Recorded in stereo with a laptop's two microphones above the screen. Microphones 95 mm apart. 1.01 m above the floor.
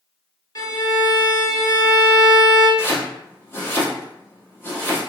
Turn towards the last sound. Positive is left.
turn(degrees=25)  # may be behind; listen again after turning